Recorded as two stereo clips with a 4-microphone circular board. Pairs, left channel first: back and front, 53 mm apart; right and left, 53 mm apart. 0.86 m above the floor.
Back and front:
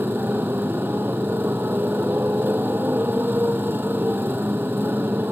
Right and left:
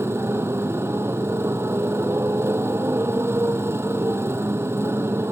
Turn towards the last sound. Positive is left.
turn(degrees=50)